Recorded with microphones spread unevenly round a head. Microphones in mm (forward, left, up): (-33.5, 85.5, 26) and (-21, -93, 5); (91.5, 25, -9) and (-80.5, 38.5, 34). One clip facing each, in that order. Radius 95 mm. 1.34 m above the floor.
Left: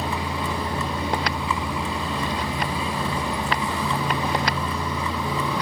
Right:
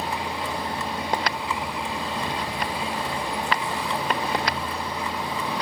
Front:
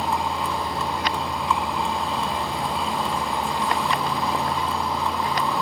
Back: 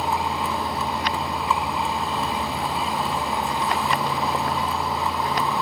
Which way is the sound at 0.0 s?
90° left.